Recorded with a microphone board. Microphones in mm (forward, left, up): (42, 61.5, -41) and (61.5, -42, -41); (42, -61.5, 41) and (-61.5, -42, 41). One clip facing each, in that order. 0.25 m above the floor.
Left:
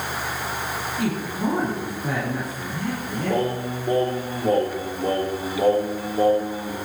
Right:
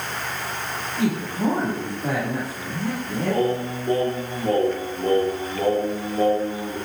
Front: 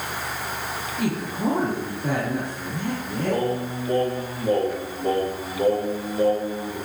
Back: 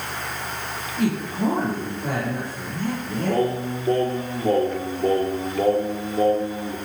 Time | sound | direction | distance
1.0 | a man speaking | 145° right | 8 m
3.3 | singing | 170° right | 6.5 m